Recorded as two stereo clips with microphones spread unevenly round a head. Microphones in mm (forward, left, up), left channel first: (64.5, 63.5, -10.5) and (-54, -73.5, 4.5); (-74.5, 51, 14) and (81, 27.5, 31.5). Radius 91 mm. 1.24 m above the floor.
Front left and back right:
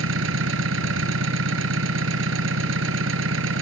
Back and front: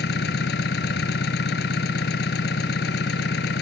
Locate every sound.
0.0 s an engine running: 150° right